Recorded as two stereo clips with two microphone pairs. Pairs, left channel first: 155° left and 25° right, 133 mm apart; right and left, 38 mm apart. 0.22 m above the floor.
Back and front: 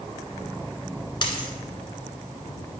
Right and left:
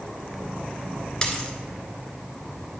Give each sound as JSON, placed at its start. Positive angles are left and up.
{"t": 1.2, "sound": "a dropped coin", "azimuth_deg": -155, "distance_m": 1.2}